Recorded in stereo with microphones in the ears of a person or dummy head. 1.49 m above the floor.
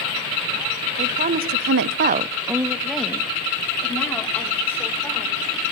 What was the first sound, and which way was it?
A woman speaking, 35° right (ahead or behind).